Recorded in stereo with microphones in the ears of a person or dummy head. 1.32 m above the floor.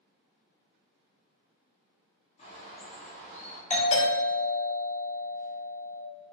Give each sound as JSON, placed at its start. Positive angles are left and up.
{"t": 2.4, "sound": "a bird", "side_deg": 45, "distance_m": 0.5}
{"t": 3.7, "sound": "a doorbell", "side_deg": 40, "distance_m": 0.8}